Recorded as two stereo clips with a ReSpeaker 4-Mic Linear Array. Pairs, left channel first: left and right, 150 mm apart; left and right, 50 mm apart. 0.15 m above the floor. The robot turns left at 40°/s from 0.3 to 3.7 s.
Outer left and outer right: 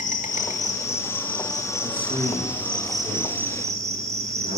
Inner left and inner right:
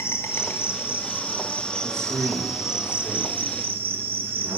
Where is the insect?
80° left, 1.3 m; by 4.6 s 55° right, 1.3 m.